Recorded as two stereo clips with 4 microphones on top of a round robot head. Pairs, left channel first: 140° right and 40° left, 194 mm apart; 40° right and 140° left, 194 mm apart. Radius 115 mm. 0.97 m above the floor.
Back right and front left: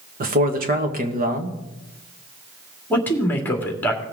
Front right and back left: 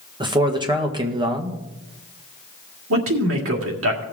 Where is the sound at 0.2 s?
75° left, 1.5 m.